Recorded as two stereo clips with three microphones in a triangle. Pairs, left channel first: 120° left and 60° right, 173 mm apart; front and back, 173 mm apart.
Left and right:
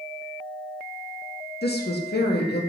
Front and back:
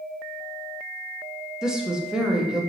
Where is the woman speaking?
95° left, 0.6 m.